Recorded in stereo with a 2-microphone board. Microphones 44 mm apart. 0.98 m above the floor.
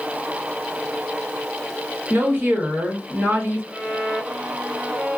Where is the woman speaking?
45° right (ahead or behind), 1.2 m; by 3.6 s 60° right (ahead or behind), 1.2 m.